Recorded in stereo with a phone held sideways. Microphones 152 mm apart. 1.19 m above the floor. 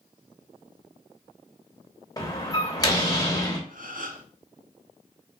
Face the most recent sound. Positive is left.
turn(degrees=-60)  # may be behind; listen again after turning